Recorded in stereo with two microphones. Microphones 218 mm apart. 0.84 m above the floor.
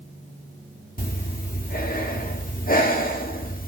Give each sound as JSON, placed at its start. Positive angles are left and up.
{"t": 1.0, "sound": "breathing", "side_deg": 40, "distance_m": 1.4}